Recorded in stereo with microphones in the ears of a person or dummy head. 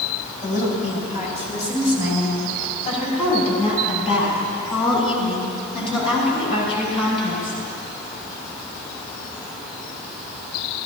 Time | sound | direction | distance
0.4 | a woman speaking | 45° left (ahead or behind) | 6.5 m